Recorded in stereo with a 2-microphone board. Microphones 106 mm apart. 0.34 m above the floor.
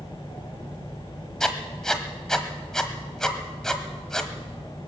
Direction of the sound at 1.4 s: 5° left (ahead or behind).